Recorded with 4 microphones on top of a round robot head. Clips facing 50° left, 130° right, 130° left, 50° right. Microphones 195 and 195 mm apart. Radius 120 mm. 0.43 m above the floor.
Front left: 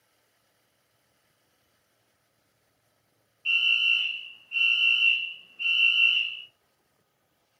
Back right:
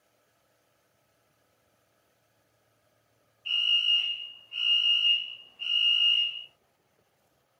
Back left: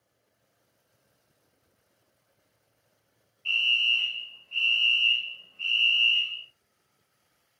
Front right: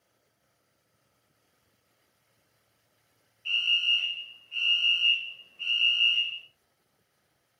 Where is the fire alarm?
15° left, 1.9 m.